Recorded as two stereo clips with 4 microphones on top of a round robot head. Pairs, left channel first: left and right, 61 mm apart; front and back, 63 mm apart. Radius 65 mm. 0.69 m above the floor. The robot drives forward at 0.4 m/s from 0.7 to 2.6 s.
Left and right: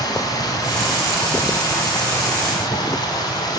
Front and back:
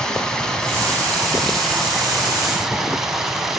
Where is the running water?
80° left, 3 m; by 3.6 s 95° left, 3 m.